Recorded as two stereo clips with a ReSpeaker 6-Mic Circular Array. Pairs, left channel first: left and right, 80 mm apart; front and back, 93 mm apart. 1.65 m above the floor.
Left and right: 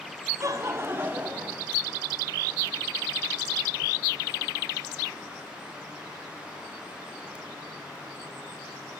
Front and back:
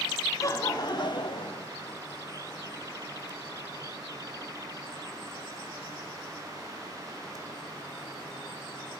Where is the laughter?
50° right, 0.9 m; by 1.7 s 15° right, 1.1 m.